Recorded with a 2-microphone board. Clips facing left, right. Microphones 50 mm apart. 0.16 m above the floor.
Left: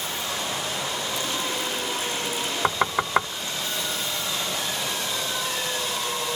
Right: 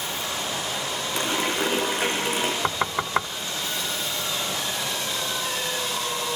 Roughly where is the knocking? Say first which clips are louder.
Left 2 dB; centre.